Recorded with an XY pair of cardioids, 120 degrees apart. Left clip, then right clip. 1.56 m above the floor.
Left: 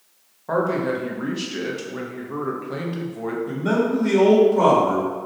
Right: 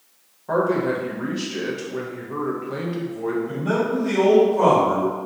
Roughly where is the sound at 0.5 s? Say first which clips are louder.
Right 1 dB; ahead.